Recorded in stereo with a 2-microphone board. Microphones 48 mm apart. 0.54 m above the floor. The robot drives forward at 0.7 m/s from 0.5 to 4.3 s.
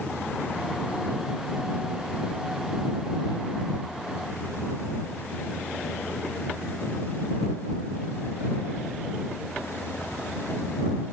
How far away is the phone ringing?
I don't hear a phone ringing.